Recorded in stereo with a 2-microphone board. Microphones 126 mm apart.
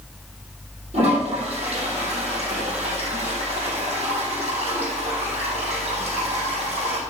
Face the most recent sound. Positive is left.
turn(degrees=-60)  # may be behind; listen again after turning